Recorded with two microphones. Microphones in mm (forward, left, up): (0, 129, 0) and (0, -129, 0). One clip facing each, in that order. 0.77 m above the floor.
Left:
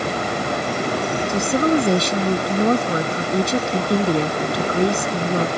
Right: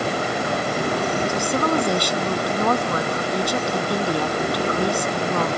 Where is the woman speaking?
20° left (ahead or behind).